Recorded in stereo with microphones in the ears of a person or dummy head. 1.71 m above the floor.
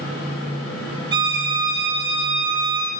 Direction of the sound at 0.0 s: 65° left (ahead or behind).